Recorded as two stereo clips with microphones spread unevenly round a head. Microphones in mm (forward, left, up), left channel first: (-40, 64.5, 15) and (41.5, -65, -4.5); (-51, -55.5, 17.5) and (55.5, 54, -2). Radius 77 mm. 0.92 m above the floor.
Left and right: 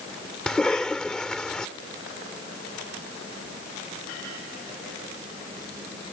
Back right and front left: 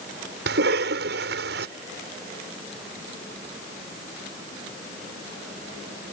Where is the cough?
35° left.